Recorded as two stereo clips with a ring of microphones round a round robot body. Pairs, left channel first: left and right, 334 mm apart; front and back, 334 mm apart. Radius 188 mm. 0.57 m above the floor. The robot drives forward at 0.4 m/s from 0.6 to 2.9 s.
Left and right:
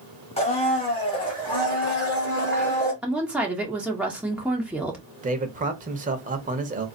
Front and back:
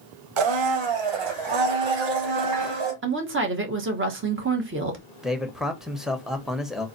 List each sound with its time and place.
0.4 s a blender: 165° left, 1.0 m; by 2.9 s 170° left, 1.9 m
3.0 s a woman speaking: 175° right, 1.1 m
5.2 s a man speaking: 95° right, 0.9 m